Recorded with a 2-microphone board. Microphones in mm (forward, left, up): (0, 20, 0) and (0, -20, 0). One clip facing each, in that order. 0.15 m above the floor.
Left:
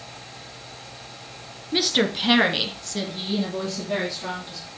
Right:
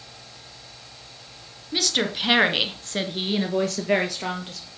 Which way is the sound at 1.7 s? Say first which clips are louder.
Left 3 dB; 15° left (ahead or behind).